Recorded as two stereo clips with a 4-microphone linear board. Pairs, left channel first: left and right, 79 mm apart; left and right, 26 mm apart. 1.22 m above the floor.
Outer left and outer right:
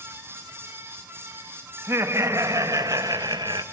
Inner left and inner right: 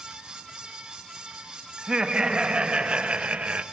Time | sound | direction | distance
1.8 | laughter | 30° right (ahead or behind) | 2 m